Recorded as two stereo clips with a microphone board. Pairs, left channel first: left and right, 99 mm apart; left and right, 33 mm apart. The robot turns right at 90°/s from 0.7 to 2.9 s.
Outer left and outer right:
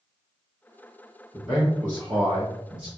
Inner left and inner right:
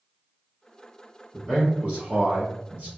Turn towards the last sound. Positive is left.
turn(degrees=-60)